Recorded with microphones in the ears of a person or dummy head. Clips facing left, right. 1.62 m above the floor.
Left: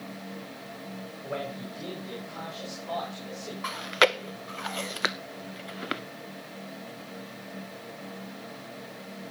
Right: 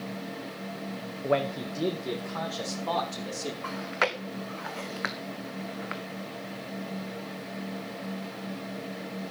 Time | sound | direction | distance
1.2 | a man speaking | 70° right (ahead or behind) | 0.9 m
3.6 | chewing | 50° left (ahead or behind) | 0.7 m